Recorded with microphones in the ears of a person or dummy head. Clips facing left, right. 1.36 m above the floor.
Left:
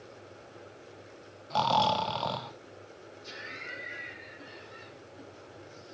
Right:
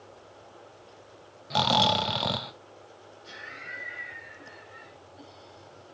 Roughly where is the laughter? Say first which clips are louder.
Left 1 dB; left.